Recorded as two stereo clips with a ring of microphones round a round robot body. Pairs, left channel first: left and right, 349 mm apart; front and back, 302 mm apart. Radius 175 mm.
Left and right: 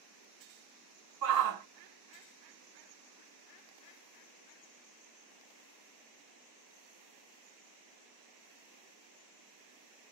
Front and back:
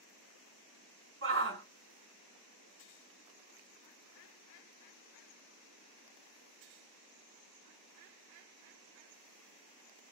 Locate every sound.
1.2 s a shout: 130° right, 2.5 m